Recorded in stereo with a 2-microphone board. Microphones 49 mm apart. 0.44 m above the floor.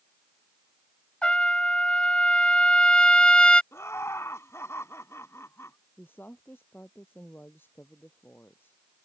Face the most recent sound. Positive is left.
turn(degrees=50)  # may be behind; listen again after turning